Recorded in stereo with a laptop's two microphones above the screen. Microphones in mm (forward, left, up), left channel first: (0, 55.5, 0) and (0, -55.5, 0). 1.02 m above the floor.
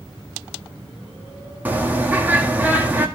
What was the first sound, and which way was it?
A bird, 15° right (ahead or behind).